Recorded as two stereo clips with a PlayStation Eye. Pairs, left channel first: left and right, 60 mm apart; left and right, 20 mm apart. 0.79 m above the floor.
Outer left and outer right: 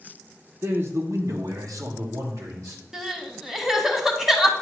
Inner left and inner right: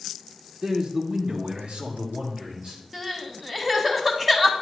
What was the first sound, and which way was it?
A man speaking, 40° right (ahead or behind).